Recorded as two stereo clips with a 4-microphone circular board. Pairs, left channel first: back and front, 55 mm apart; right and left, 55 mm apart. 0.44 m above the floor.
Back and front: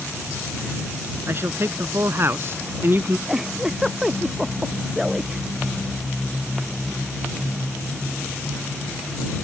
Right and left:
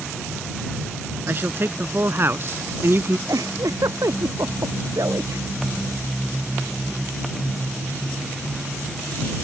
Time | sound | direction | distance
1.3 | a man speaking | 40° left | ?
3.3 | a giggle | 85° left | ?